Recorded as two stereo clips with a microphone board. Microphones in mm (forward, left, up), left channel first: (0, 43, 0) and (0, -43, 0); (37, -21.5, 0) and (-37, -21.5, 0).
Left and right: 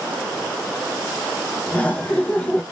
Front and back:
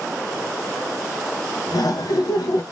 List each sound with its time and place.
1.7 s laughter: 20° left, 0.9 m